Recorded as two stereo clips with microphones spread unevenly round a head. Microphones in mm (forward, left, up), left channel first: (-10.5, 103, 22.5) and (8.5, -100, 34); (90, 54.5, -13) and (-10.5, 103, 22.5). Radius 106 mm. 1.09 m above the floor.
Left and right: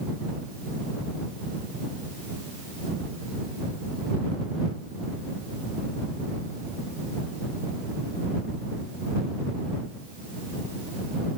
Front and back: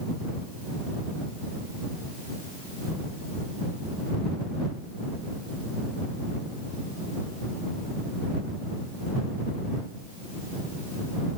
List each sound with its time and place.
Only background noise.